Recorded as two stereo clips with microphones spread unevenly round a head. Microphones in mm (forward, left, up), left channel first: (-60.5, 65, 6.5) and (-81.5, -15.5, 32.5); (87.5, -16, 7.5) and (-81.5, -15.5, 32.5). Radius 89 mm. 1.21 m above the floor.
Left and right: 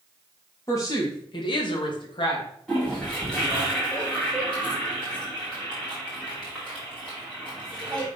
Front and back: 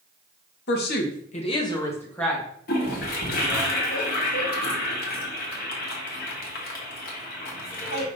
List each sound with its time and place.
0.7 s a woman speaking: 15° left, 1.0 m; by 2.5 s 90° left, 1.4 m
2.7 s a toilet flushing: 25° right, 1.1 m